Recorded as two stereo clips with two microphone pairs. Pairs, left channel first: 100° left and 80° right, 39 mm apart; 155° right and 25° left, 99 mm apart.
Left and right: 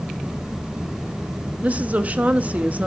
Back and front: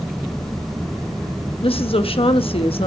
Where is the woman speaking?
135° right, 1.1 m.